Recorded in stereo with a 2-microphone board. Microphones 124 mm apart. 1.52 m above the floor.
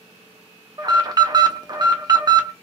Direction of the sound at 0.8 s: 35° right (ahead or behind).